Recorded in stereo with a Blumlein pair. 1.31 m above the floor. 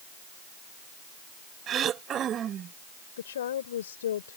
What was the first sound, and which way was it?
Throat clearing, 25° right.